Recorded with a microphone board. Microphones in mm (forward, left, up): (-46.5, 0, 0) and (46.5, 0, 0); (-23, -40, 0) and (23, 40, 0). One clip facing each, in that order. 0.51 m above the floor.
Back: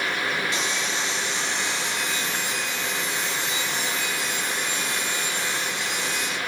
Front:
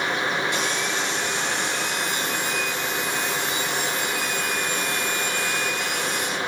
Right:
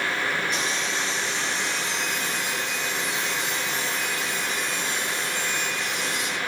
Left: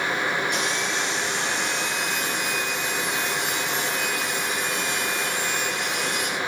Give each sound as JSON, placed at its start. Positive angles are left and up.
{"t": 0.5, "sound": "sawing", "azimuth_deg": 35, "distance_m": 8.0}